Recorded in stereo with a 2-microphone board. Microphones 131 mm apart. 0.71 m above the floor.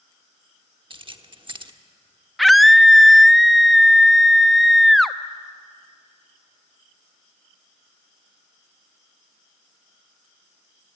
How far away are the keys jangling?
About 1.1 m.